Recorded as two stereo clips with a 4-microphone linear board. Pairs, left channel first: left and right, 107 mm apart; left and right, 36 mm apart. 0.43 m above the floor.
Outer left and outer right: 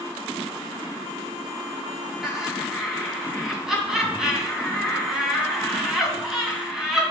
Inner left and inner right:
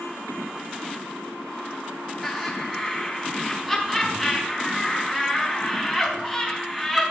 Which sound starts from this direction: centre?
Laughter, at 2.2 s.